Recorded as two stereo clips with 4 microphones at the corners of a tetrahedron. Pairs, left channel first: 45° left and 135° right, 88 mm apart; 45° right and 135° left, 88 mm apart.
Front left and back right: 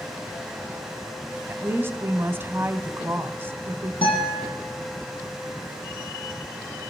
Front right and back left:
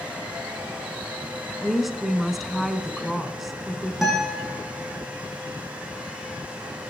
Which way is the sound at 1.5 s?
140° right.